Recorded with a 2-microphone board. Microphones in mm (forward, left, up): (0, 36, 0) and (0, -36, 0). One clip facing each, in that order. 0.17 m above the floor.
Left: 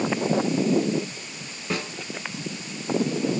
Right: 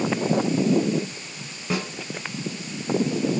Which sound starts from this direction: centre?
A snare drum, at 1.7 s.